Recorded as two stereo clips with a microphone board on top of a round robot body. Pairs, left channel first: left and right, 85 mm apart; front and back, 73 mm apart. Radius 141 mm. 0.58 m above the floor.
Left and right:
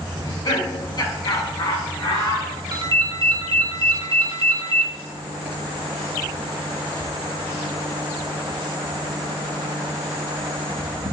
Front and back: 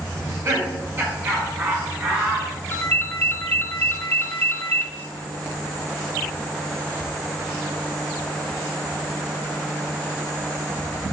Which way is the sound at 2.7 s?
65° right.